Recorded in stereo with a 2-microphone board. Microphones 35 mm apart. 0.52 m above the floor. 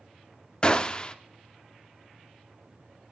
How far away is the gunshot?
About 0.5 m.